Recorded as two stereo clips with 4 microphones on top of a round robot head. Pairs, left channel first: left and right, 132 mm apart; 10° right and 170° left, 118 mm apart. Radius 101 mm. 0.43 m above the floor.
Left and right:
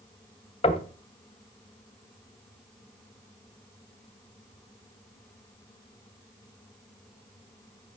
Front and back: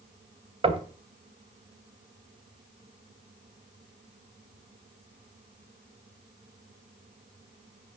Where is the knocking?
135° left, 2 m.